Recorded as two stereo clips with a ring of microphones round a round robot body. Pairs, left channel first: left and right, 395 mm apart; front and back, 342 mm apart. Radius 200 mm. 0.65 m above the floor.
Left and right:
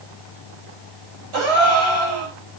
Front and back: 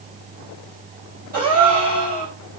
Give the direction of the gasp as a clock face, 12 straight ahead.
4 o'clock.